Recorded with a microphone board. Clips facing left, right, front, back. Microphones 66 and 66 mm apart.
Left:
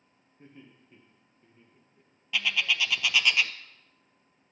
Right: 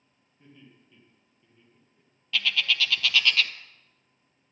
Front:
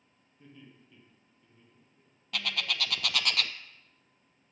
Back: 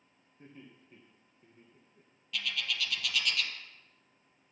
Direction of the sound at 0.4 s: 130° left.